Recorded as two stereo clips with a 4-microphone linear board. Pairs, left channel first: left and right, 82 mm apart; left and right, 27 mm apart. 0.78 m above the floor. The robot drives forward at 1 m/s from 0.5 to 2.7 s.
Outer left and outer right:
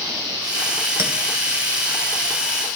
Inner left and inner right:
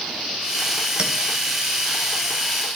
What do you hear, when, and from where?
1.0 s a clink: 35° right (ahead or behind), 2.5 m; by 1.1 s 30° right (ahead or behind), 2.5 m